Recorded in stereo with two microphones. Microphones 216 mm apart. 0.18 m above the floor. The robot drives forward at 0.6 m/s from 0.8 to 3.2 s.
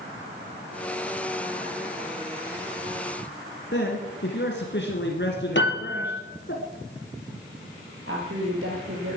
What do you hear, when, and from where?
3.7 s a man speaking: 60° left (ahead or behind), 2 m
5.5 s a piano: 60° left (ahead or behind), 3.5 m
8.1 s a woman speaking: 70° right (ahead or behind), 5.5 m